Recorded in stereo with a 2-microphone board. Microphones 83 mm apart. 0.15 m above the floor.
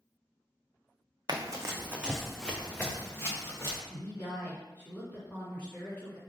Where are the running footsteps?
55° right (ahead or behind), 0.6 m; by 3.8 s 35° left (ahead or behind), 1.2 m.